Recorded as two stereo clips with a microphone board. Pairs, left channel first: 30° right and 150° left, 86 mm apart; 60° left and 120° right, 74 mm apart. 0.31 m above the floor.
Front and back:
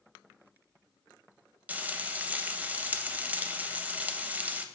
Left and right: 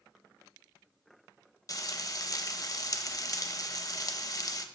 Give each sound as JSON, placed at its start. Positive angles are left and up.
{"t": 1.7, "sound": "frying", "azimuth_deg": 85, "distance_m": 0.5}